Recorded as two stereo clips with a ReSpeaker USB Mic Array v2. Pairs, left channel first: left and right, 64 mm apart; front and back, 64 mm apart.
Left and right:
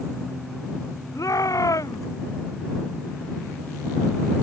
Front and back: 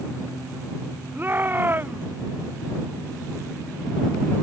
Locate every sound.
1.1 s a shout: 120° left